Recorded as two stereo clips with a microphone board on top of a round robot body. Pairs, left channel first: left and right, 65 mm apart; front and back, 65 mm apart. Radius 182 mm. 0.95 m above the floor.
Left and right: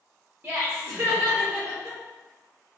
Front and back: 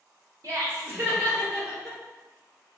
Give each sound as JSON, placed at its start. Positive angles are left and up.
{"t": 0.4, "sound": "laughter", "azimuth_deg": -150, "distance_m": 1.2}